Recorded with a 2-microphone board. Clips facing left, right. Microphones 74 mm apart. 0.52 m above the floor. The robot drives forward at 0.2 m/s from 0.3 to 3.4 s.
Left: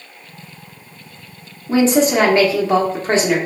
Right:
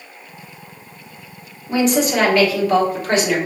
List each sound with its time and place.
1.7 s a woman speaking: 35° left (ahead or behind), 1.1 m